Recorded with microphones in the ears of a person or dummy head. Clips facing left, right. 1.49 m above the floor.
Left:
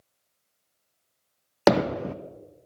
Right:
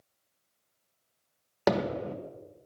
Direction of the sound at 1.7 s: 60° left (ahead or behind).